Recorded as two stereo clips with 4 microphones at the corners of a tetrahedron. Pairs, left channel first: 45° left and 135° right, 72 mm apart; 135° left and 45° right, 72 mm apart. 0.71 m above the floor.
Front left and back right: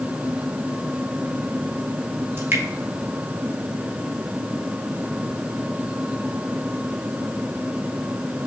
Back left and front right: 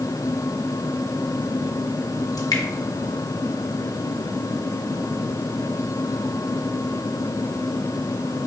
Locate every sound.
2.4 s dripping: 170° left, 0.7 m